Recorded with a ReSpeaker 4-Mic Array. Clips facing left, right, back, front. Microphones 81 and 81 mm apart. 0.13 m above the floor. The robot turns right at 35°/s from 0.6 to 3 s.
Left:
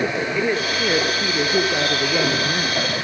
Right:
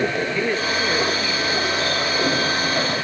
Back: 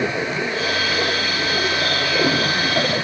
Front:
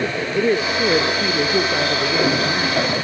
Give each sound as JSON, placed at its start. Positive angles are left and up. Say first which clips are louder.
{"t": 0.3, "sound": "a woman speaking", "louder": "left 1 dB, front 5 dB", "azimuth_deg": 10, "distance_m": 3.0}